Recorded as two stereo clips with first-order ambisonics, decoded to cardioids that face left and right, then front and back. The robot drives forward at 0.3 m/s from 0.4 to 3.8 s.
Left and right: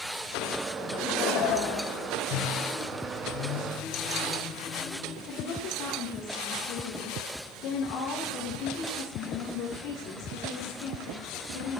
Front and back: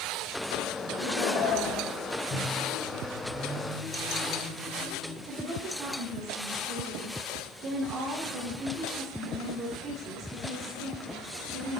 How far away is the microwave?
About 4 m.